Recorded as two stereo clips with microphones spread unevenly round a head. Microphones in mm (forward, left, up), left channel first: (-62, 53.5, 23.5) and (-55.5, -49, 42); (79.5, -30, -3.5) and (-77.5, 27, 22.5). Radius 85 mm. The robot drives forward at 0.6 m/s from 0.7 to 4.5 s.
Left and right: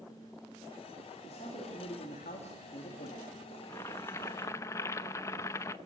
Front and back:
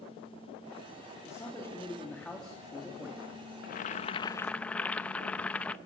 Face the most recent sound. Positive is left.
turn(degrees=80)